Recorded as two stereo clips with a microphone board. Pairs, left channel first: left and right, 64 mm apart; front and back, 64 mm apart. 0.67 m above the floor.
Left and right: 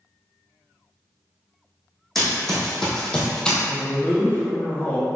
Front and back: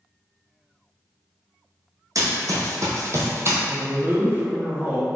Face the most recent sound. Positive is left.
turn(degrees=135)